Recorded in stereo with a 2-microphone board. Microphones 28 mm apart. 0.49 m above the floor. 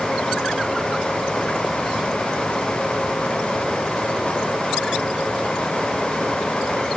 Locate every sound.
Only background noise.